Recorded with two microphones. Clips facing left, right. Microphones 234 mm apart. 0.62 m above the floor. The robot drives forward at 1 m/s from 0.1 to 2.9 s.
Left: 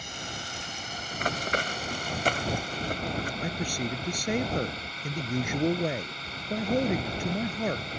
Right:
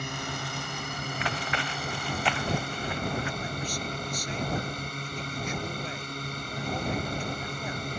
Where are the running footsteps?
45° left (ahead or behind); by 3.3 s 40° left (ahead or behind).